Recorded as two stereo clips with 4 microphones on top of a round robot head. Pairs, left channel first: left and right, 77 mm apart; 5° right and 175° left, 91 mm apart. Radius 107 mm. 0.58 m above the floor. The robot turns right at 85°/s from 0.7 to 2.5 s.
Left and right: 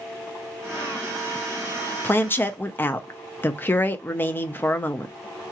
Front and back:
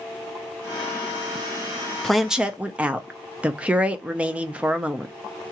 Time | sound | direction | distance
2.0 | a woman speaking | 75° left | 0.8 m